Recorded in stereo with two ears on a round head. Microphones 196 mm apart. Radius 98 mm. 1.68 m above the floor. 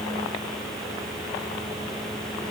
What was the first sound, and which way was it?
Only background noise.